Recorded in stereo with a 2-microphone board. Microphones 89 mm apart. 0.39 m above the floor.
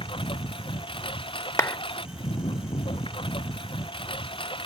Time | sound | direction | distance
0.0 | a lawn mower | 80° left | ?
1.6 | a clap | 35° left (ahead or behind) | ?